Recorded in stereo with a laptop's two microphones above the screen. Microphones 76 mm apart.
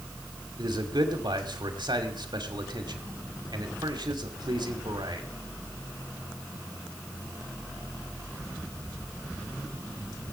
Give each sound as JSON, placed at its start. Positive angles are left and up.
{"t": 0.6, "sound": "a man speaking", "side_deg": -80, "distance_m": 2.0}